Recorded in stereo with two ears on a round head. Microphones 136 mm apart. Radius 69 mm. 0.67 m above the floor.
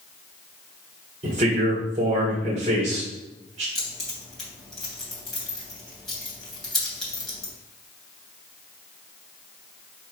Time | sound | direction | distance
1.2 | a man speaking | 45° right (ahead or behind) | 1.7 m
3.8 | keys jangling | 5° left (ahead or behind) | 3 m